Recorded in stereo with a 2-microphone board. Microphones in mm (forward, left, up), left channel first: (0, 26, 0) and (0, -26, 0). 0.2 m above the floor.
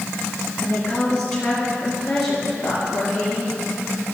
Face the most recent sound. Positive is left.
turn(degrees=5)  # may be behind; listen again after turning